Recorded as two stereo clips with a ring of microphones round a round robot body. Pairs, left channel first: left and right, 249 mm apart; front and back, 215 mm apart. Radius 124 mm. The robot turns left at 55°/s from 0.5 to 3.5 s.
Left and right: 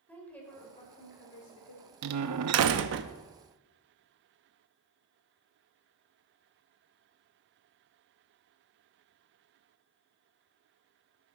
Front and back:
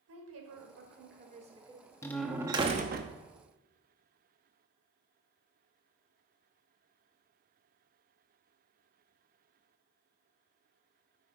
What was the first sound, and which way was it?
A woman speaking, 175° left.